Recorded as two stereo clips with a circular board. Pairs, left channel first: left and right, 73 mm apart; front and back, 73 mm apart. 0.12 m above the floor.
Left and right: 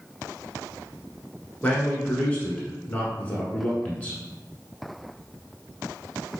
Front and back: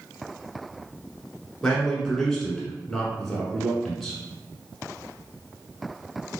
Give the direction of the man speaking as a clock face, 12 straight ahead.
10 o'clock.